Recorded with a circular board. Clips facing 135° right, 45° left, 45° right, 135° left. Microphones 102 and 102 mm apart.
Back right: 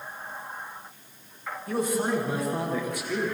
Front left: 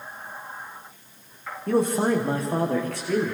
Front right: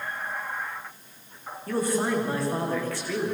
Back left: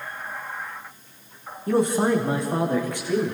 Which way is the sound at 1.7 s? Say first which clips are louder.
Front left 5 dB, back left 5 dB; 70° left.